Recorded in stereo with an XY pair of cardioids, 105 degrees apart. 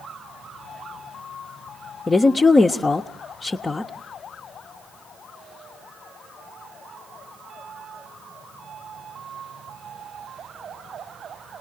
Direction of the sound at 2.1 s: 25° left.